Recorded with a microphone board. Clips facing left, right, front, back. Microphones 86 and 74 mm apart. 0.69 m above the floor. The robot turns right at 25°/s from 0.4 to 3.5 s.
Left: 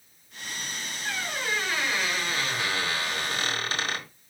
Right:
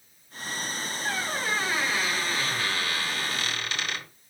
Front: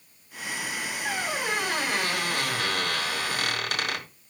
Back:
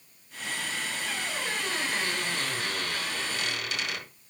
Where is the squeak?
25° right, 1.9 m; by 4.1 s 35° left, 1.9 m.